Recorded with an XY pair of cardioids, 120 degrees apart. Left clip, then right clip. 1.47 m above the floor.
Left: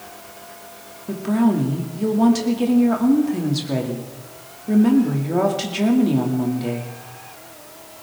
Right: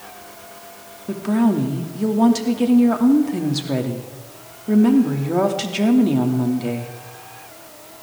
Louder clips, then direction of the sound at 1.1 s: Even; 10° right.